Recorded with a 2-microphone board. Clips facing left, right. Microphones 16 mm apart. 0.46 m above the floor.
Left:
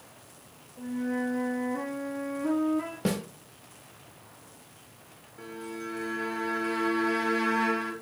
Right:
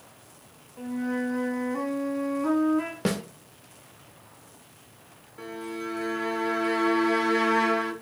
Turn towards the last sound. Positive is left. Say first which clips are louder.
# right 4 dB
turn(degrees=-25)  # may be behind; listen again after turning